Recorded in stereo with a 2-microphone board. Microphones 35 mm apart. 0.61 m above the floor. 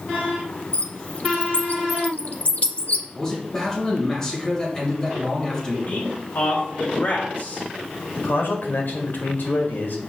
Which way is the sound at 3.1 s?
15° left (ahead or behind).